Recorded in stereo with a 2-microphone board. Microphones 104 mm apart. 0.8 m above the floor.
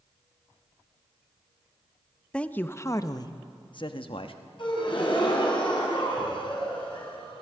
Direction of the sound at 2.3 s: 10° left (ahead or behind).